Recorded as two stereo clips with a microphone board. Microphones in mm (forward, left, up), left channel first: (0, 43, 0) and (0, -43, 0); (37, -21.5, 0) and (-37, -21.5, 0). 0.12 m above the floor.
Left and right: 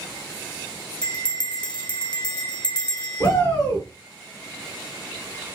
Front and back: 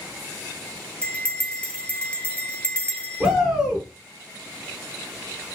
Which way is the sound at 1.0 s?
70° left.